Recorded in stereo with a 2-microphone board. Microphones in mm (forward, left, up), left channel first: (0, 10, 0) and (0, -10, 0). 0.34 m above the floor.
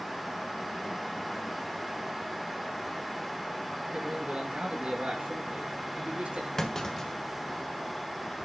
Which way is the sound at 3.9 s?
55° right (ahead or behind).